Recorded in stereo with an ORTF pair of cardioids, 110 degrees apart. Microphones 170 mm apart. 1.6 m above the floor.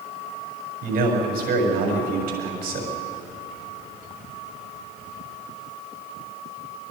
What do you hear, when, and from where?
0.8 s a man speaking: 60° right, 7 m